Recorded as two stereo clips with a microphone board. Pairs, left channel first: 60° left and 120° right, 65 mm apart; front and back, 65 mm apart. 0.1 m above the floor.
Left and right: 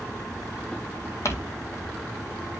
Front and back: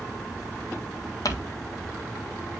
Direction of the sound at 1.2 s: 20° left.